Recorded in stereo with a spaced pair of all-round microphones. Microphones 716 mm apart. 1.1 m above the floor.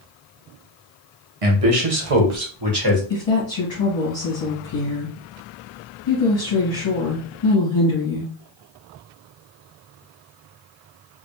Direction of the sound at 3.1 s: 40° left (ahead or behind).